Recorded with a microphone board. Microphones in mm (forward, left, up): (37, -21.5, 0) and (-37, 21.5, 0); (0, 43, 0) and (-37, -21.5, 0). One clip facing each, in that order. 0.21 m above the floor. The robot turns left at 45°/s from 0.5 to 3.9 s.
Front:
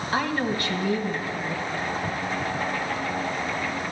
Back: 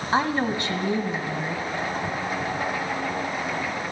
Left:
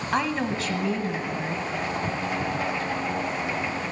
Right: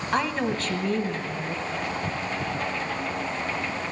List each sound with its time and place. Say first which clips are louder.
0.1 s a woman speaking: back 3 dB, even; 150° left, 1.1 m; by 1.6 s 95° left, 1.1 m